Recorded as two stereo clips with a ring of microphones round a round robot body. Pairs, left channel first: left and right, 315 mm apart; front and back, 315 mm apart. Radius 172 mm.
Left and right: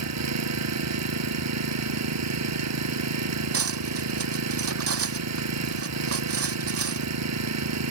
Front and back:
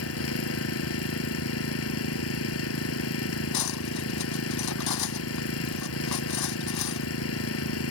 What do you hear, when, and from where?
0.0 s an engine running: 55° right
3.5 s cutlery clinking: 45° right